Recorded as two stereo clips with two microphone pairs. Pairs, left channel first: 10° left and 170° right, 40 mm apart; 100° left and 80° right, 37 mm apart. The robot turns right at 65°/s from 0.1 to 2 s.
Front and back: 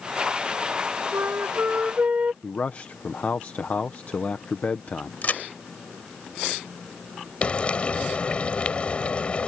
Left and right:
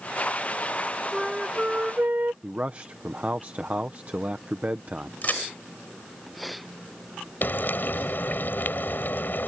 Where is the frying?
65° left.